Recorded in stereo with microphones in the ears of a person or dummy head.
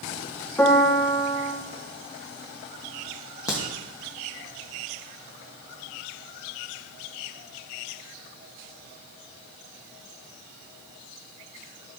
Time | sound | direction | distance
0.6 | a piano | 10° left (ahead or behind) | 0.9 m
3.5 | a crack | 20° left (ahead or behind) | 1.4 m